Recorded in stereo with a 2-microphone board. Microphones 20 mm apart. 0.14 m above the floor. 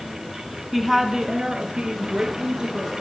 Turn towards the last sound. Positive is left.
turn(degrees=-55)  # may be behind; listen again after turning